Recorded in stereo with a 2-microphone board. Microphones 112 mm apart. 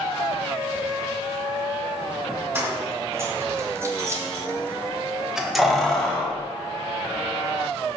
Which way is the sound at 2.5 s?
20° right (ahead or behind).